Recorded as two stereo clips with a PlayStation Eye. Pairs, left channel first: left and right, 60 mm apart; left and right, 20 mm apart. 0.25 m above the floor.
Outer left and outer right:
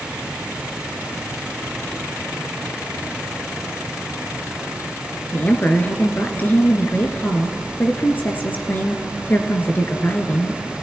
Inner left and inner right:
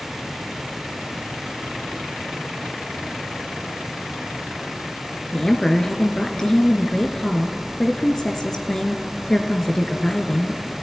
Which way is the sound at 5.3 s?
30° left (ahead or behind).